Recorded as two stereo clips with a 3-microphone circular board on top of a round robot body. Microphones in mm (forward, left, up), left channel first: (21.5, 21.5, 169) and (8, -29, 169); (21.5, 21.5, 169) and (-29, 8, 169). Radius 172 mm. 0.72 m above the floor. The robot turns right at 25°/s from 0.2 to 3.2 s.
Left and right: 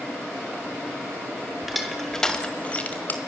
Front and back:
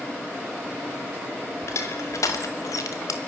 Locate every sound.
1.6 s crushing: 20° right, 1.2 m; by 3.2 s 20° left, 1.2 m